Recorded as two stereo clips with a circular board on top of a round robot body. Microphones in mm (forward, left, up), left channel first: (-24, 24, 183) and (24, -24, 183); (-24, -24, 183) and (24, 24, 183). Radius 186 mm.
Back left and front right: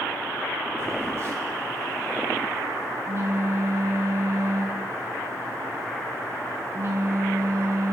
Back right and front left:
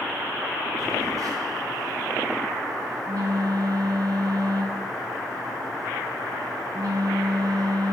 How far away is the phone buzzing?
About 0.8 m.